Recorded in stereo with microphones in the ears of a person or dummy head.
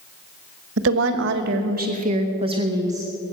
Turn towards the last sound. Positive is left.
turn(degrees=-15)  # may be behind; listen again after turning